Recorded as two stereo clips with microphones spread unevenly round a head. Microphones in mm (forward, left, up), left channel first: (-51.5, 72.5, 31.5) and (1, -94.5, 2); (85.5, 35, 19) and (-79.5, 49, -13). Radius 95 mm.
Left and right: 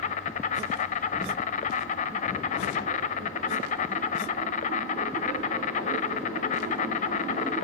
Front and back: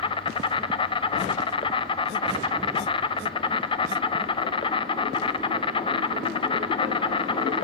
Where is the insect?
60° left, 0.8 m.